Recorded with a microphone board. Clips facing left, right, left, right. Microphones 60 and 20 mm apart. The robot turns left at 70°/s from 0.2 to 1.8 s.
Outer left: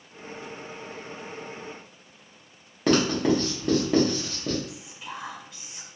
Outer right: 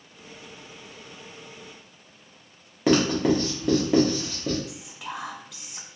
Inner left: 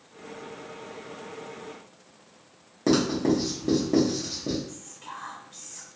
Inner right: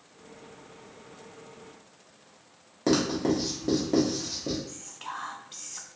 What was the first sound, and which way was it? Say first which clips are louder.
Writing: outer right 1 dB, inner left 2 dB; 5° right (ahead or behind).